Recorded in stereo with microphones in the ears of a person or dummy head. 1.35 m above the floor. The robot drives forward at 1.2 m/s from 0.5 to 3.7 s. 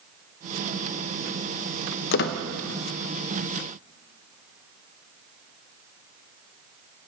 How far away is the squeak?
About 0.6 m.